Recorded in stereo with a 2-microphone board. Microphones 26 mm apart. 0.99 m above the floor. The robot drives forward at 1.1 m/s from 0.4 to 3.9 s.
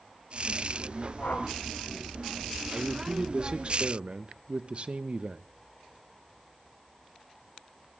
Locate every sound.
1.2 s a whoosh: 85° left, 6 m
2.7 s a man speaking: 25° right (ahead or behind), 1.9 m; by 5.4 s 45° right (ahead or behind), 1.1 m